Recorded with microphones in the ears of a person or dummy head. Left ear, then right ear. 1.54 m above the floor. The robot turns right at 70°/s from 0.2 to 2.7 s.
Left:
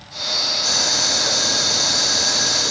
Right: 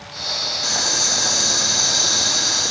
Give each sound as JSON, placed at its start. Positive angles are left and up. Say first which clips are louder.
{"t": 0.6, "sound": "boiling", "louder": "right 2 dB", "azimuth_deg": -150, "distance_m": 0.9}